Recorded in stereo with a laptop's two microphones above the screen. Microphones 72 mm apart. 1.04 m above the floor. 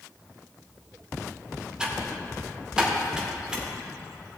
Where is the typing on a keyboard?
10° right (ahead or behind), 2.5 m.